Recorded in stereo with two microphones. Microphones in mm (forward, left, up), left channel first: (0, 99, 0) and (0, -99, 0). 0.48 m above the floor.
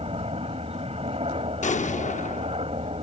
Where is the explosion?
35° left (ahead or behind).